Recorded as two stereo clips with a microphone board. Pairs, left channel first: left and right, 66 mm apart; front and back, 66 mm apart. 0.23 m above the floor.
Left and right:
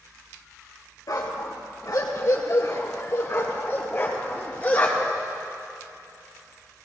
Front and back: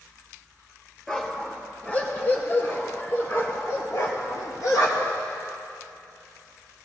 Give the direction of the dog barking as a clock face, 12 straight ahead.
9 o'clock.